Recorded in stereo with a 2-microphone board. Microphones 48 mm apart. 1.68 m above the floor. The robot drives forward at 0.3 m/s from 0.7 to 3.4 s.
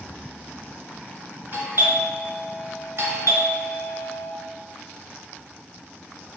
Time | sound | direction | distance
1.5 | a doorbell | 50° right (ahead or behind) | 0.9 m